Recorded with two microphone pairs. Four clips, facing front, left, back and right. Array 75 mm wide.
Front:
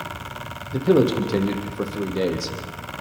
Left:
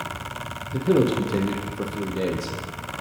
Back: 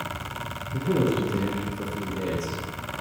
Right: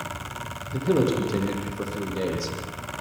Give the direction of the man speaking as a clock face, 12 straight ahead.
12 o'clock.